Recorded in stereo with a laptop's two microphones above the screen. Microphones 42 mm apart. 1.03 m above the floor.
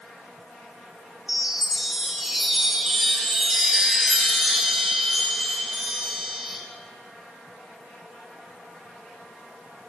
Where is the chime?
10° right (ahead or behind), 9.5 m.